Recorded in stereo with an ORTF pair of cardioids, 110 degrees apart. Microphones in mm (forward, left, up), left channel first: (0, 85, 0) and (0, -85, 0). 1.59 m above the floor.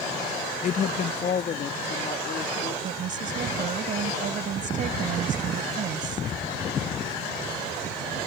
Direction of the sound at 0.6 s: 50° left.